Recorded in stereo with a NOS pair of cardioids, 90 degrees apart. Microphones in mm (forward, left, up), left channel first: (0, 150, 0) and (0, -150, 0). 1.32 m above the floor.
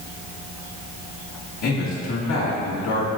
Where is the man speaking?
65° left, 1.8 m.